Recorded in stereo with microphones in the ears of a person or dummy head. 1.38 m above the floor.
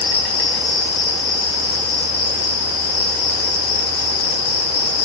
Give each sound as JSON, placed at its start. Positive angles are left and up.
{"t": 0.0, "sound": "an insect", "side_deg": 60, "distance_m": 1.8}